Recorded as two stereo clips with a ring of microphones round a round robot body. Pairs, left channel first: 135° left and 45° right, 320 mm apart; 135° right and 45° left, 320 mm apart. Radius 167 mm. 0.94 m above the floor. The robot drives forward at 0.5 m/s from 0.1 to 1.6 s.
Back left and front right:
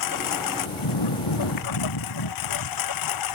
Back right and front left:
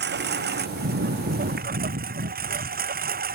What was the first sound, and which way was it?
A lawn mower, 105° left.